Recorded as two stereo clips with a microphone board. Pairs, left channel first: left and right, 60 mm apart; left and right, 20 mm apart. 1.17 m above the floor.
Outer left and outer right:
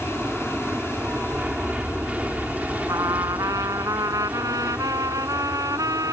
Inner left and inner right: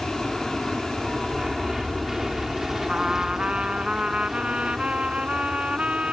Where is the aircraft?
20° right (ahead or behind); by 6.1 s 25° right (ahead or behind).